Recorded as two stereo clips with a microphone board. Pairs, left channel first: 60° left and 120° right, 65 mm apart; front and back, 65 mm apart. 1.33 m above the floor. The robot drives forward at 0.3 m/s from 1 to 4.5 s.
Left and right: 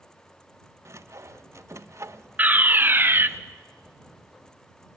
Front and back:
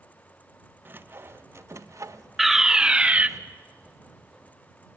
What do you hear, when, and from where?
0.8 s sawing: 140° right, 0.6 m; by 3.4 s 165° right, 1.1 m
2.4 s a fire alarm: 95° right, 0.8 m; by 3.3 s 130° right, 0.8 m